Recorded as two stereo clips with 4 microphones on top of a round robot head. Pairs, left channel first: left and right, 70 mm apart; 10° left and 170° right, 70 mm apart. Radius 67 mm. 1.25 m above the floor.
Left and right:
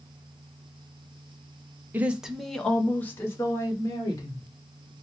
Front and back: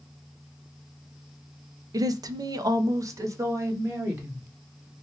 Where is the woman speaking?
150° right, 0.6 m; by 4.5 s 135° left, 1.5 m.